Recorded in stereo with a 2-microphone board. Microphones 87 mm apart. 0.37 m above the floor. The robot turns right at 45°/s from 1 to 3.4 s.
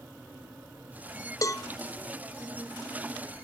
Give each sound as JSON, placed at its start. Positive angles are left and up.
{"t": 1.4, "sound": "a cowbell", "side_deg": 40, "distance_m": 0.5}